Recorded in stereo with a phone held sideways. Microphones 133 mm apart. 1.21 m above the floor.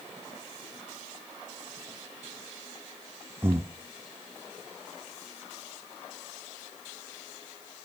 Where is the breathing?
15° right (ahead or behind), 1.3 m.